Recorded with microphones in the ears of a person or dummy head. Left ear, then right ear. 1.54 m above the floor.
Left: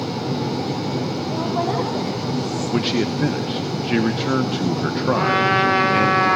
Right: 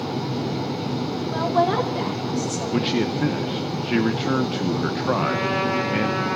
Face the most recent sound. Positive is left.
turn(degrees=60)  # may be behind; listen again after turning